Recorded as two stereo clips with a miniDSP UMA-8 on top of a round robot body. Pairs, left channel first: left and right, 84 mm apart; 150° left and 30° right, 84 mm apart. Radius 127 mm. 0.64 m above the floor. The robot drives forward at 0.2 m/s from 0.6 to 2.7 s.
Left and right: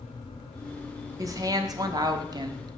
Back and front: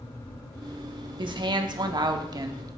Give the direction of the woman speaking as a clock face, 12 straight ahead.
2 o'clock.